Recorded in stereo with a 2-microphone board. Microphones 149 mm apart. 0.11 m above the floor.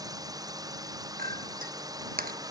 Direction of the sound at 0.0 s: 25° right (ahead or behind).